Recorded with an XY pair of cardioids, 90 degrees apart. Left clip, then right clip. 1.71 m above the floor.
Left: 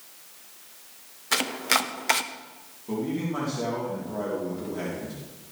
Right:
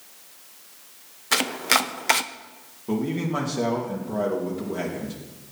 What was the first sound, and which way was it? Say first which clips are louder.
Chopping: right 3 dB; 20° right.